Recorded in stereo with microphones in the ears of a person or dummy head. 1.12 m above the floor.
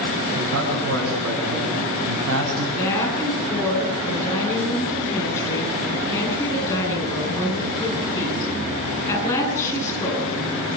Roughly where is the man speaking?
Right.